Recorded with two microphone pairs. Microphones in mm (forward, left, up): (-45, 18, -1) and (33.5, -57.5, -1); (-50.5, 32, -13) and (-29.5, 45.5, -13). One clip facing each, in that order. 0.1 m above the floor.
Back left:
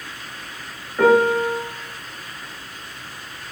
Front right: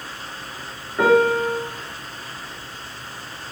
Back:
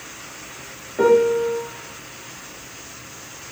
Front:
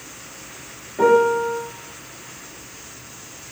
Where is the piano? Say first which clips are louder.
Back left 1 dB, even; 100° right, 1.4 m.